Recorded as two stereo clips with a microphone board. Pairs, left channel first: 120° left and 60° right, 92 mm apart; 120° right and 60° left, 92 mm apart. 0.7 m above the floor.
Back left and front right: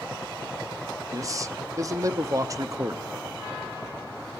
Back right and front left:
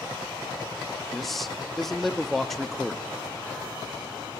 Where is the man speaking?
35° right, 0.8 m.